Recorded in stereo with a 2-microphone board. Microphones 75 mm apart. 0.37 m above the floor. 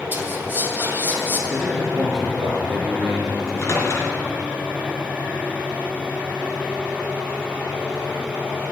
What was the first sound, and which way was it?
Whispering, 30° right (ahead or behind).